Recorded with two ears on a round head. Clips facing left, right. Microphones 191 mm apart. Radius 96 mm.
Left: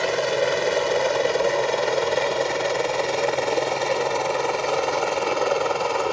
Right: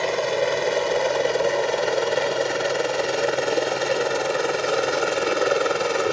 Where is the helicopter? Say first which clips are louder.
Even; 5° left (ahead or behind); by 6.1 s 20° right (ahead or behind).